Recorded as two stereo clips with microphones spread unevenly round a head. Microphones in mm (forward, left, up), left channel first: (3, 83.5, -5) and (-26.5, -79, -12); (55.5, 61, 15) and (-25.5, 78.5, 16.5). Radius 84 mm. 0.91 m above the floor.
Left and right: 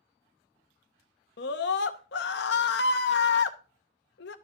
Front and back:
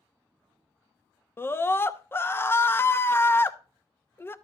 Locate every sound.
1.4 s a scream: 50° left, 0.7 m